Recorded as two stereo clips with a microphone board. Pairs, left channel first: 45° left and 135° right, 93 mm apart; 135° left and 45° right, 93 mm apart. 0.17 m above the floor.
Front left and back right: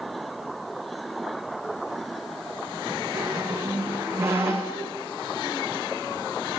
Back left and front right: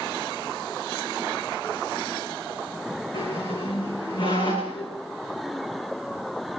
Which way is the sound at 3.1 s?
160° left.